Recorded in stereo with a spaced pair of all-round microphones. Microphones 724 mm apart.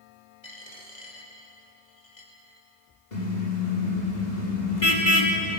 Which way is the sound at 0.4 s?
50° left (ahead or behind).